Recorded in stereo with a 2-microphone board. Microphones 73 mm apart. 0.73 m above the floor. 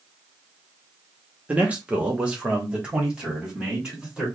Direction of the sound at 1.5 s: 20° right (ahead or behind).